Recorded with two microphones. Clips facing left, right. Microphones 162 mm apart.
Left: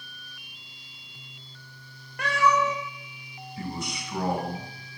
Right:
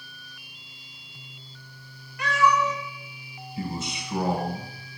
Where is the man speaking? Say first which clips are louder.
Right 2 dB; 20° right (ahead or behind), 1.4 m.